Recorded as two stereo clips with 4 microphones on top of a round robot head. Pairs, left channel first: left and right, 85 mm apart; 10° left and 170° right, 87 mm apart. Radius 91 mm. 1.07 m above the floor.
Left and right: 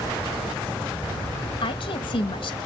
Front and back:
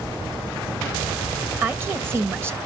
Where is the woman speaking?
125° left, 1.5 m.